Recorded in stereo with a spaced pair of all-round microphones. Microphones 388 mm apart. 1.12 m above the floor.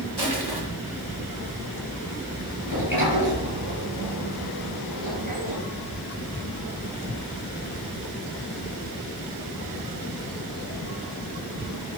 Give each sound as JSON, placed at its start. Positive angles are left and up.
{"t": 0.2, "sound": "crushing", "side_deg": -85, "distance_m": 2.5}
{"t": 2.6, "sound": "a sliding door", "side_deg": -60, "distance_m": 5.5}